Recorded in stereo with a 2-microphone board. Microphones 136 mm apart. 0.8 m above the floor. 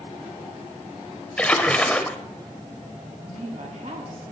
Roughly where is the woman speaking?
Right.